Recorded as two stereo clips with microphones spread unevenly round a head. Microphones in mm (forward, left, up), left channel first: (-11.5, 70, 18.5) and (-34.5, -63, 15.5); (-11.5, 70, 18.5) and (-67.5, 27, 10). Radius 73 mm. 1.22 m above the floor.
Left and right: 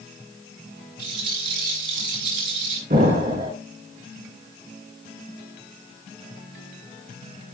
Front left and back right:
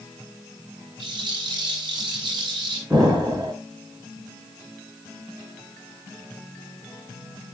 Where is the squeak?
No squeak in this recording.